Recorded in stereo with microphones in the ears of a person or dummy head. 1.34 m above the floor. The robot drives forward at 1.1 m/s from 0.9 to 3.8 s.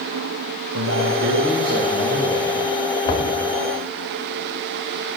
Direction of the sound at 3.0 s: 25° left (ahead or behind).